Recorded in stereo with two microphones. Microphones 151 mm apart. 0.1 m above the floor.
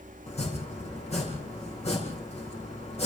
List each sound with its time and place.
0.3 s chopping: 45° left (ahead or behind), 6.5 m